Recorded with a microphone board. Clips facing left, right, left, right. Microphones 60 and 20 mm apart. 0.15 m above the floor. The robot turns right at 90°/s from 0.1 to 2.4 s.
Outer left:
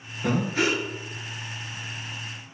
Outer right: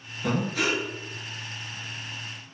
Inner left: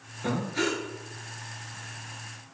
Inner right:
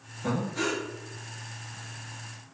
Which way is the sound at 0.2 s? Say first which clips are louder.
Outer left 2 dB, inner left 1 dB; 115° left.